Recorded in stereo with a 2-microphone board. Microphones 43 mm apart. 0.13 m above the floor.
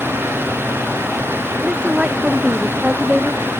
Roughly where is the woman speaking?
Centre.